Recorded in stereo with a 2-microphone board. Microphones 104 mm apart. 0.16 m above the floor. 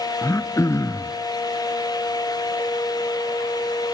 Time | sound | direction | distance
0.2 | throat clearing | 30° left (ahead or behind) | 0.6 m